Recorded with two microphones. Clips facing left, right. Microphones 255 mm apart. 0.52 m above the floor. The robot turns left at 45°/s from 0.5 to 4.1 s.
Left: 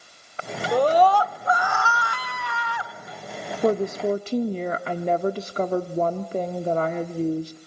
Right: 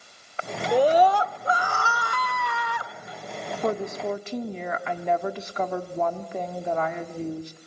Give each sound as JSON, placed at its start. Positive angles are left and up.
{"t": 0.7, "sound": "a scream", "azimuth_deg": -5, "distance_m": 1.3}
{"t": 3.6, "sound": "a woman speaking", "side_deg": 30, "distance_m": 0.8}